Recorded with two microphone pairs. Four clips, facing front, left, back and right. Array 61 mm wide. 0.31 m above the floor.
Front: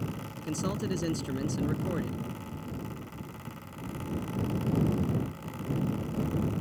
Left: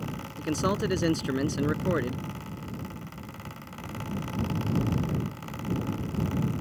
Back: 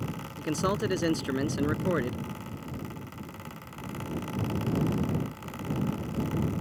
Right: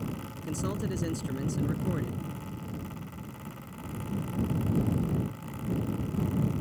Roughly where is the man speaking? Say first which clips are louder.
Left 8 dB, back 5 dB; behind left.